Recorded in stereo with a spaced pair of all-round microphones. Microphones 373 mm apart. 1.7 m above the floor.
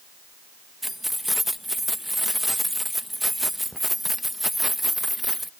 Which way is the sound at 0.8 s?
Centre (ahead or behind).